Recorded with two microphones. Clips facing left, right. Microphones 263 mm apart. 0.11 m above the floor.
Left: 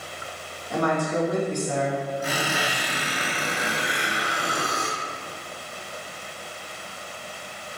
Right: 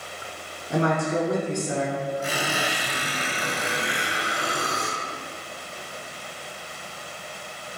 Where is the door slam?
I don't hear a door slam.